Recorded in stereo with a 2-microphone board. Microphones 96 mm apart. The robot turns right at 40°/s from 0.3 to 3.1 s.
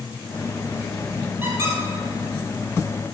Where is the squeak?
20° right (ahead or behind), 3 m; by 1.8 s 35° right (ahead or behind), 3 m.